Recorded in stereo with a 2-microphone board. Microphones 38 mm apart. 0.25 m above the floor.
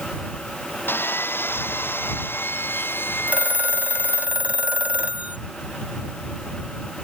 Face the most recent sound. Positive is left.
turn(degrees=-40)  # may be behind; listen again after turning